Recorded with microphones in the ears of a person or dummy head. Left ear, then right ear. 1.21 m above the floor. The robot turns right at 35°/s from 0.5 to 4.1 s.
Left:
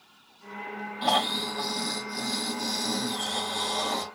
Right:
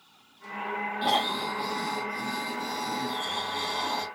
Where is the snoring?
5° left, 3 m; by 4.0 s 110° left, 3 m.